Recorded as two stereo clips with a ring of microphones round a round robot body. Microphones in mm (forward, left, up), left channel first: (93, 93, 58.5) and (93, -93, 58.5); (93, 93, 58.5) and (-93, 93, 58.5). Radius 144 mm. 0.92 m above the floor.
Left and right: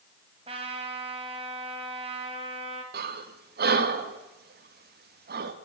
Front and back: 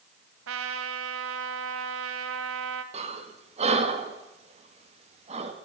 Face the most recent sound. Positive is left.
turn(degrees=-125)